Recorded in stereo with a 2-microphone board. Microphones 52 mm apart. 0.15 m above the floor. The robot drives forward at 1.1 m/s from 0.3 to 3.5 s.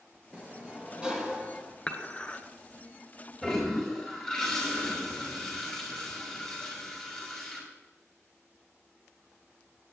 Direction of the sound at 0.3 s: 20° right (ahead or behind).